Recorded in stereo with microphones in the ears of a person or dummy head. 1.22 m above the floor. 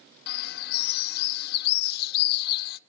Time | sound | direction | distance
0.3 | a bird | 50° left (ahead or behind) | 0.7 m